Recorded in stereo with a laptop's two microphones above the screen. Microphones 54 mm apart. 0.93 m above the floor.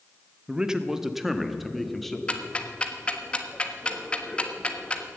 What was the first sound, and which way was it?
A man speaking, 20° right (ahead or behind).